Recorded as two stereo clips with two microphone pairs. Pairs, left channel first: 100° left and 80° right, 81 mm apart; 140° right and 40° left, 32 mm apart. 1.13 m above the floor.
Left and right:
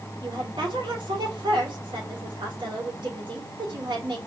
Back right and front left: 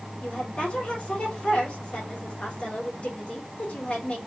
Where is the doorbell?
No doorbell in this recording.